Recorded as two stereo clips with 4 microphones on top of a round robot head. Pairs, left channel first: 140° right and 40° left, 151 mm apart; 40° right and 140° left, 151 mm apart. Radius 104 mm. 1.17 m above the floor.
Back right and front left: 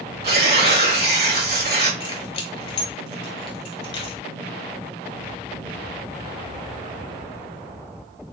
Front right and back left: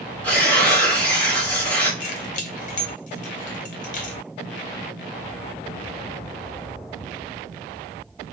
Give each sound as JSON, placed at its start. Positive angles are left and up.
{"t": 0.2, "sound": "tearing paper", "azimuth_deg": 40, "distance_m": 1.5}
{"t": 2.0, "sound": "keys jangling", "azimuth_deg": -80, "distance_m": 0.7}